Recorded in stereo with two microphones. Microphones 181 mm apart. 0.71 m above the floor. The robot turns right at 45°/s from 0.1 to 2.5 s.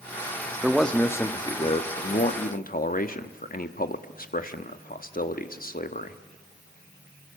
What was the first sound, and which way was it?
A man speaking, 5° right.